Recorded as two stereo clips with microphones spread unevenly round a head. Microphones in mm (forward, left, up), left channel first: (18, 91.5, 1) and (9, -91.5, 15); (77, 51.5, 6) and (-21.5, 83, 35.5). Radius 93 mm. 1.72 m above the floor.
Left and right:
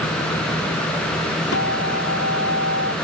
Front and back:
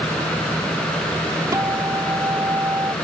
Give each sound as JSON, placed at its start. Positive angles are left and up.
{"t": 1.5, "sound": "a guitar", "azimuth_deg": 110}